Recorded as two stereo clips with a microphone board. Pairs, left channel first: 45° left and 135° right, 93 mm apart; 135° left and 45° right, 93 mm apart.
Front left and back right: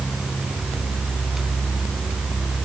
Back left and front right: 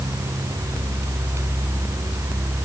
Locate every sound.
Only background noise.